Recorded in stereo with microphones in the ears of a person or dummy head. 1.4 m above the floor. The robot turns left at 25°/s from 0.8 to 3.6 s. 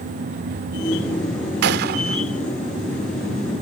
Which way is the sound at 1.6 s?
60° right (ahead or behind).